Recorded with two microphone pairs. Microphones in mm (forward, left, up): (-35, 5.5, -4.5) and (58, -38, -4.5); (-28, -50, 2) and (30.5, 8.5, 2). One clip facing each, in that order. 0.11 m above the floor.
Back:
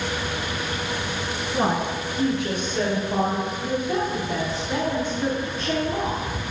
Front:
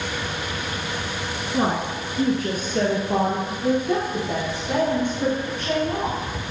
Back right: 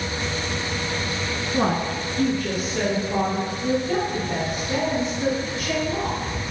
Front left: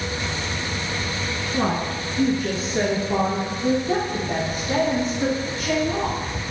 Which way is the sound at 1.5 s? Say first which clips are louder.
Even, back right 1 dB; 95° right.